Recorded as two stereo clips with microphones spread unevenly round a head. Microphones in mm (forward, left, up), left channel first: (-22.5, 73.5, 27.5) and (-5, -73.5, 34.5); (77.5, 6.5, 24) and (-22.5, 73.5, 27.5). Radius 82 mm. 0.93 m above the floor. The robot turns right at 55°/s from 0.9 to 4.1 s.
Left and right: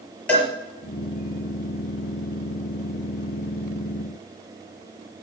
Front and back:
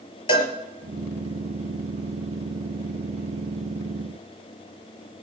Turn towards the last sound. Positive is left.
turn(degrees=-170)